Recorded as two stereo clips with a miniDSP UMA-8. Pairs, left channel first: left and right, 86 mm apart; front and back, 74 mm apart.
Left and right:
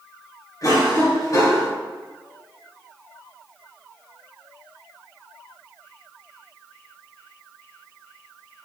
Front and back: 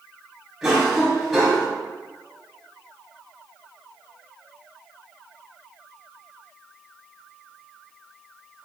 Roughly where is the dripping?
No dripping in this recording.